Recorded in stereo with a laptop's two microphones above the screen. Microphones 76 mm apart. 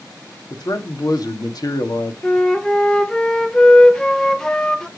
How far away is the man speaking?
About 1.6 m.